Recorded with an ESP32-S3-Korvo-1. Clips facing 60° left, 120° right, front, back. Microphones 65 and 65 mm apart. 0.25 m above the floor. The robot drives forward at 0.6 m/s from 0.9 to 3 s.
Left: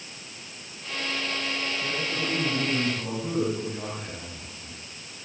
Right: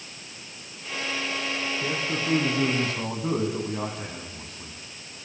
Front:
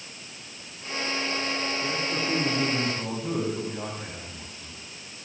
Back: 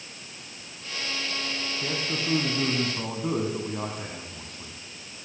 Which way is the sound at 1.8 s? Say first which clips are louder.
Right 2 dB, front 2 dB; 140° right.